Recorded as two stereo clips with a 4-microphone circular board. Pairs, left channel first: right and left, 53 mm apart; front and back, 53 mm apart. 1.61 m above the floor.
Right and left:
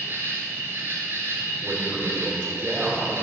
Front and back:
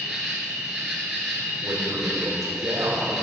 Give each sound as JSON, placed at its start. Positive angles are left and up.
{"t": 0.0, "sound": "an insect", "azimuth_deg": 100, "distance_m": 2.0}
{"t": 1.6, "sound": "a man speaking", "azimuth_deg": 155, "distance_m": 3.0}